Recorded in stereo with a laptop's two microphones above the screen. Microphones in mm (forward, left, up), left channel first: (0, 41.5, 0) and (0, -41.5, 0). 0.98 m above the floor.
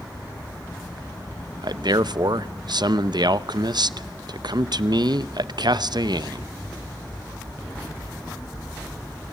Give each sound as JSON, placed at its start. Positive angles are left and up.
{"t": 1.6, "sound": "a man speaking", "side_deg": -60, "distance_m": 0.6}